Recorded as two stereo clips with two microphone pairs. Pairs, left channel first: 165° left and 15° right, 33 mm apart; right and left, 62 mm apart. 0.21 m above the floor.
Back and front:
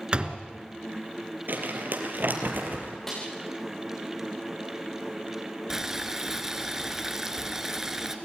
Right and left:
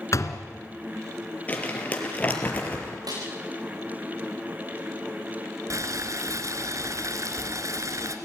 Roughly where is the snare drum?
Left.